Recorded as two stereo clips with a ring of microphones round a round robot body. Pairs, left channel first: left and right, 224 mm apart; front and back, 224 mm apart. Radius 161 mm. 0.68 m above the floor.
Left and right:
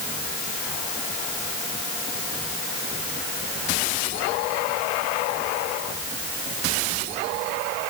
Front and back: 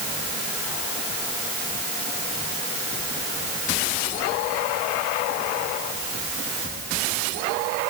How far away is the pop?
I don't hear a pop.